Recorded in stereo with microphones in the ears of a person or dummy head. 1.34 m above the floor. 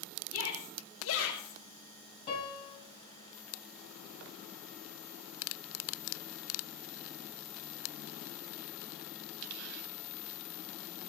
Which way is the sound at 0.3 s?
80° left.